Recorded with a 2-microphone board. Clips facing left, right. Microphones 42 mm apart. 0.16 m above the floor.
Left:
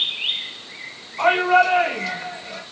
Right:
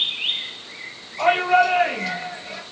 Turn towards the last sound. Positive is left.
turn(degrees=-15)  # may be behind; listen again after turning